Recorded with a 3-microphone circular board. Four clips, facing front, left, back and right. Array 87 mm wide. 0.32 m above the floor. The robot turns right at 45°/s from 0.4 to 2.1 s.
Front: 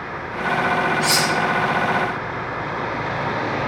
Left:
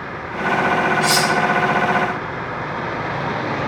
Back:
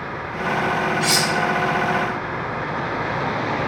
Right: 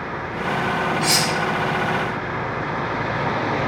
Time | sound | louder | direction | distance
1.0 | cutlery clinking | left 4 dB, front 1 dB | 165° left | 1.2 m